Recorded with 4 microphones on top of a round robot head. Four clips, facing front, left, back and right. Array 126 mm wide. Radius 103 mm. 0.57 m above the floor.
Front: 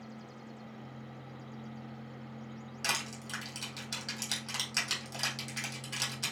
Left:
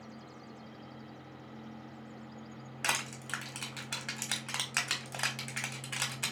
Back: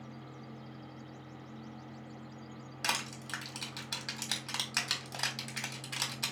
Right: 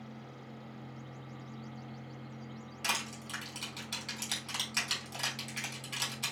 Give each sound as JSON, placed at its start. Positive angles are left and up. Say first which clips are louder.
{"t": 2.8, "sound": "crushing", "louder": "left 2 dB, back 1 dB", "azimuth_deg": 120, "distance_m": 1.5}